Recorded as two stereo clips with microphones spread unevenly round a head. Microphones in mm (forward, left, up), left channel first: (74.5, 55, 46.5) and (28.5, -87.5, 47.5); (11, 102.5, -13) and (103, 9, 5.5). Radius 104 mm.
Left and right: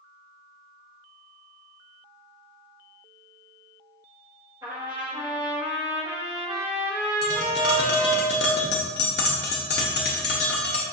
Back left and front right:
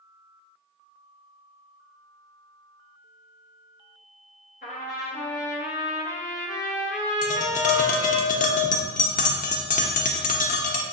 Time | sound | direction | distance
4.6 | a trumpet | straight behind | 0.5 m
7.2 | tapping | 105° left | 0.5 m